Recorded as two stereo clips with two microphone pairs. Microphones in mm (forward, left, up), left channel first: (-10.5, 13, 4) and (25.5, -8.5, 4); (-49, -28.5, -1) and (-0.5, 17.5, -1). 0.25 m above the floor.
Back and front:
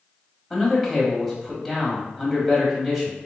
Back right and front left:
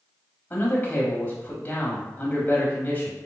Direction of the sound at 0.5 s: 115° right.